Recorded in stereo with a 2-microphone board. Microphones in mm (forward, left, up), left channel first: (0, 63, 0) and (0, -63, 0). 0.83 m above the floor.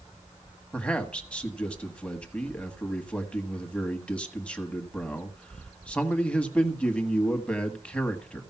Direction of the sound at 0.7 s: 10° left (ahead or behind).